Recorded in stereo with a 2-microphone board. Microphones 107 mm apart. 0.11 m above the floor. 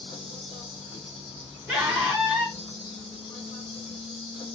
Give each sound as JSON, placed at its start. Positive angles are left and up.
{"t": 0.0, "sound": "an insect", "side_deg": 55, "distance_m": 2.0}
{"t": 1.7, "sound": "a scream", "side_deg": -15, "distance_m": 1.5}